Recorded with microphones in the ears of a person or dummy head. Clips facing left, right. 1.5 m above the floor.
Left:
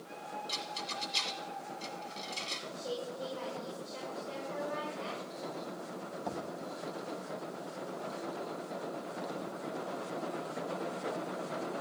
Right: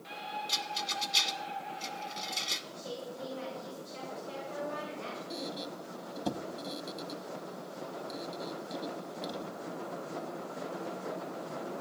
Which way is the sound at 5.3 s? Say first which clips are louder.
Right 2 dB; 50° right (ahead or behind).